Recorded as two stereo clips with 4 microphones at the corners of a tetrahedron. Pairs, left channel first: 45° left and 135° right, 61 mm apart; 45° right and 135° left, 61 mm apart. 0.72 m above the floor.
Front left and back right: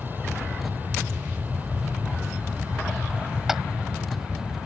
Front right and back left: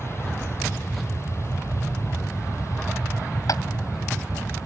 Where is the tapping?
50° right.